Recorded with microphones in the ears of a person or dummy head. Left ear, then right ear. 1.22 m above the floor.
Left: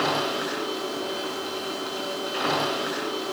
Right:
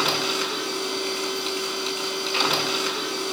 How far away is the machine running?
About 6.5 m.